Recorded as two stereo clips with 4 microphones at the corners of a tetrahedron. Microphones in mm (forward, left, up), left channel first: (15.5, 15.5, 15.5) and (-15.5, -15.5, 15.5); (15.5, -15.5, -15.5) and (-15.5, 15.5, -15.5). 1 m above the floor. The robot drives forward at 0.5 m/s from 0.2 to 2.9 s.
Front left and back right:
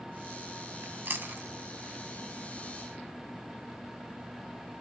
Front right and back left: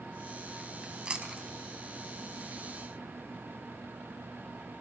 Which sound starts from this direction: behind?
Chewing, at 0.8 s.